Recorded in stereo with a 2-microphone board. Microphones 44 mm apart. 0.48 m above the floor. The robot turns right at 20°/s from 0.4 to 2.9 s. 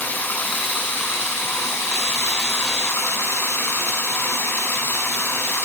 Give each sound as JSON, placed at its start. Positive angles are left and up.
{"t": 0.0, "sound": "running water", "azimuth_deg": 50, "distance_m": 4.5}